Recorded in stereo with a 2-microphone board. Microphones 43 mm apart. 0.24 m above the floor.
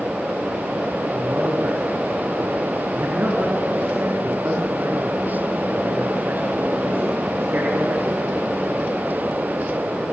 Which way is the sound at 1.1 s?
50° right (ahead or behind).